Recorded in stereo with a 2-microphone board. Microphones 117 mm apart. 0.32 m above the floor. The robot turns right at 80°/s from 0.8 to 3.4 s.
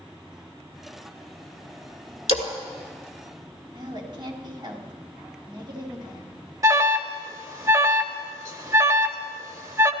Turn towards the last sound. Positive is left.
turn(degrees=-30)  # may be behind; listen again after turning